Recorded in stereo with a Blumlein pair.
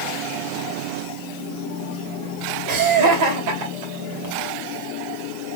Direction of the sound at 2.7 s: 45° right.